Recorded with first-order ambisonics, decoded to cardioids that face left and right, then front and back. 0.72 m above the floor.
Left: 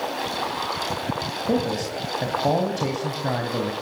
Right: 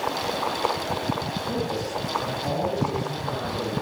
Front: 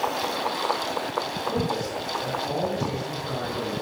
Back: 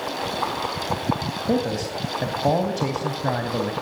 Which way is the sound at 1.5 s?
145° left.